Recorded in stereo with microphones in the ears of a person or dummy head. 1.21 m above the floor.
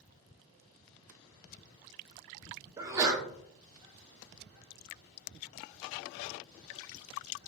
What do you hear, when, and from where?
2.8 s a sneeze: 20° right (ahead or behind), 0.5 m